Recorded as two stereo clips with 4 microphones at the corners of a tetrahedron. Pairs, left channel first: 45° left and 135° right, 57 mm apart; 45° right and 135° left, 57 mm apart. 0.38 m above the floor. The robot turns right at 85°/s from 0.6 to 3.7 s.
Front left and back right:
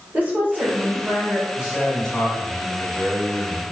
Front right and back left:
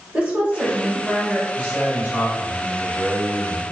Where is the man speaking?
75° right, 1.4 m; by 3.6 s 105° left, 1.4 m.